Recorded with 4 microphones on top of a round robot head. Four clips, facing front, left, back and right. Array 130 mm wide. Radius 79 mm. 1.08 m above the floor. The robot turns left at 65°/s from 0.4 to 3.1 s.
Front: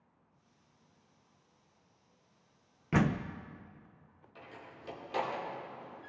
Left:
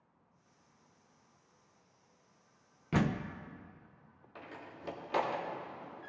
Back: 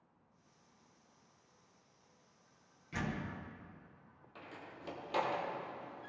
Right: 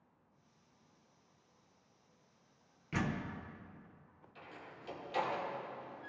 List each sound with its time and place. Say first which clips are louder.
2.9 s a door slam: left 5 dB, front 10 dB; 35° left, 0.5 m; by 3.3 s 25° left, 0.5 m
4.3 s a door slam: left 4 dB, even; 100° left, 1.7 m